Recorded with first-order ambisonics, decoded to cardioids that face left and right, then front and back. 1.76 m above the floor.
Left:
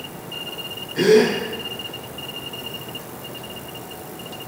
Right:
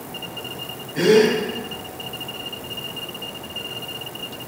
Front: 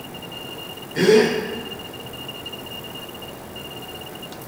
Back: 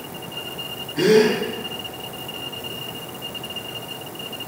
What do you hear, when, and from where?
0.9 s a gasp: 15° left, 1.7 m